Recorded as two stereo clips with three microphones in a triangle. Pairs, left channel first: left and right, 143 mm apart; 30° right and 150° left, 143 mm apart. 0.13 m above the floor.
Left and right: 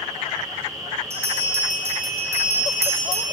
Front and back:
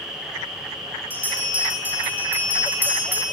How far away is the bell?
About 4.5 m.